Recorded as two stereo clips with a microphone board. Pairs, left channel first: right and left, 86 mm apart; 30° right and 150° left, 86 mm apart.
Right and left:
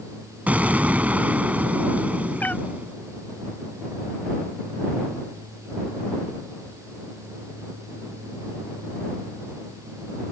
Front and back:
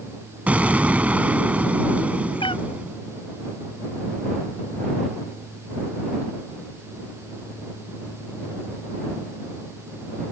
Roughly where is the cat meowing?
Ahead.